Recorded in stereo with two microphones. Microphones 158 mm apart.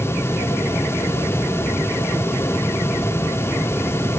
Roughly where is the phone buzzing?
I don't hear a phone buzzing.